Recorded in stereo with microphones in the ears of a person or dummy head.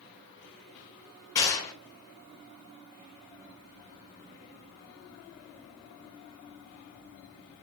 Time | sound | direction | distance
1.4 | a gunshot | 20° left (ahead or behind) | 5 m